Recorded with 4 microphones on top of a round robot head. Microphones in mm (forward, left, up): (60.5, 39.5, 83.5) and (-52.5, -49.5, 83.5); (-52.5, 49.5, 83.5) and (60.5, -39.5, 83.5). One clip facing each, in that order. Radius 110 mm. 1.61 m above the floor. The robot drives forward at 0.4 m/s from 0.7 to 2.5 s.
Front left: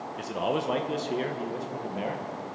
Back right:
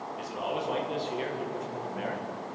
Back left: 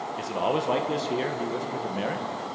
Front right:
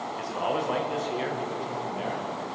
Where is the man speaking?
80° left, 1.2 m; by 2.3 s 110° left, 1.3 m.